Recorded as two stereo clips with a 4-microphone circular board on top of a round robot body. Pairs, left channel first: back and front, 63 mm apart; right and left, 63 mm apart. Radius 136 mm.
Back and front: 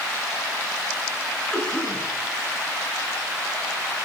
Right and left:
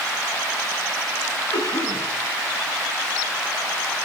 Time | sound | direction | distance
1.5 | a cough | 100° right | 9.5 m